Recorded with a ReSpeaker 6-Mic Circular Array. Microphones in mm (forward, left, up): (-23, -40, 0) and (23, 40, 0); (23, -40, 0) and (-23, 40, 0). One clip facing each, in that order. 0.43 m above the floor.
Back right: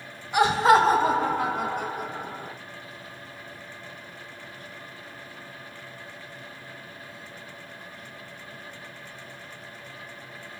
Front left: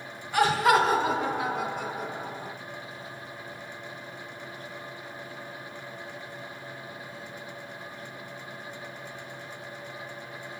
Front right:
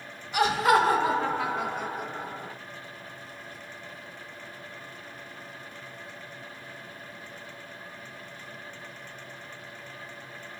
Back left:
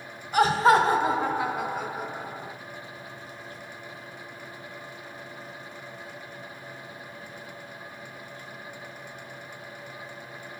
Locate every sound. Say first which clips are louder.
0.3 s laughter: back right 3 dB, back left 3 dB; 165° left, 1.8 m; by 2.5 s 155° right, 4 m